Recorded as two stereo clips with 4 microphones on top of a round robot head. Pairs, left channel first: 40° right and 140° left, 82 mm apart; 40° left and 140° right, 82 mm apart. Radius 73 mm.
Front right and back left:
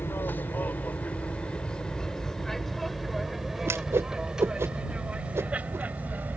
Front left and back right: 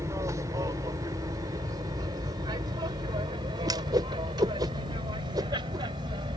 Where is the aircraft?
100° right; by 6.4 s 155° right.